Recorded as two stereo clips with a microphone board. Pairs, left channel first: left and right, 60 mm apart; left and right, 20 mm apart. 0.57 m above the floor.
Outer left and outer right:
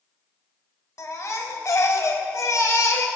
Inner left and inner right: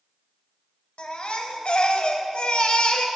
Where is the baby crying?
65° left (ahead or behind), 1.3 m.